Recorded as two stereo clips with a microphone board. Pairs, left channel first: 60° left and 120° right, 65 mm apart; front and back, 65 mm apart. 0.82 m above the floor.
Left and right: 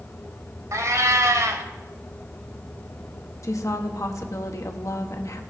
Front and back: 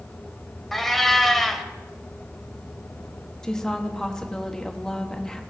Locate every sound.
0.7 s a cat meowing: 85° right, 1.1 m
3.4 s a woman speaking: 80° left, 1.3 m